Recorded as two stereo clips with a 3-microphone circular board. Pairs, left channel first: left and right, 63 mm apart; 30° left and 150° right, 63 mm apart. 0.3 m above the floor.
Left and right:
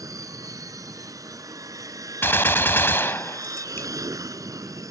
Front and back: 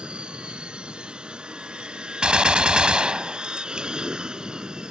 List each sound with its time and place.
0.0 s an aircraft: 75° right
2.2 s a gunshot: 135° left